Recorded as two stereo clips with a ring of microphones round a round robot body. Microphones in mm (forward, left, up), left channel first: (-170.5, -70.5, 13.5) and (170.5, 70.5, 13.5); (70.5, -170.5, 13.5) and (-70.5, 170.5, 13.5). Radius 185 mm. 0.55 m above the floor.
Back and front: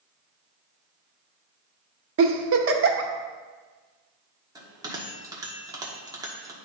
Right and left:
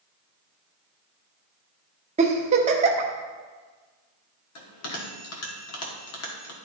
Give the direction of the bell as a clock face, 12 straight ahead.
2 o'clock.